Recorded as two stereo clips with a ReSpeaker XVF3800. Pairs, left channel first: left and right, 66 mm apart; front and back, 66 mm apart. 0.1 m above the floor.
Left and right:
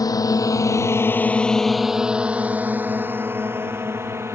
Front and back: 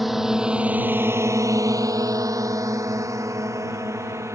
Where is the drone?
90° left; by 4.3 s 140° right.